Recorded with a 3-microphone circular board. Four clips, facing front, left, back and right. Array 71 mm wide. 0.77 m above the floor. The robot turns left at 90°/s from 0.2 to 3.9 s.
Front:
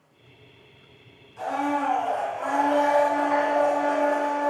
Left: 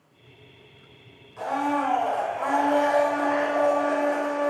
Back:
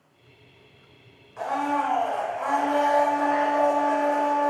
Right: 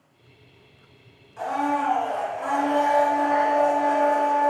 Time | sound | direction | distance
1.4 | a blender | straight behind | 3 m